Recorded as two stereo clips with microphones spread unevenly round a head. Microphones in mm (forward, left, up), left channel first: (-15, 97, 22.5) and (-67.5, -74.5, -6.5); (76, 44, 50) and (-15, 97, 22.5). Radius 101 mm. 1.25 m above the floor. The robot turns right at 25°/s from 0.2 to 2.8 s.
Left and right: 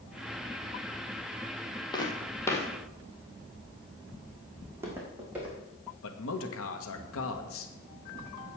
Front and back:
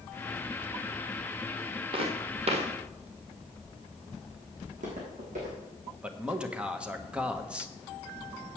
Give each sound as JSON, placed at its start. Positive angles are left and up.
{"t": 1.9, "sound": "footsteps", "azimuth_deg": 120, "distance_m": 1.7}
{"t": 4.6, "sound": "footsteps", "azimuth_deg": 175, "distance_m": 4.0}
{"t": 6.0, "sound": "a man speaking", "azimuth_deg": 70, "distance_m": 1.4}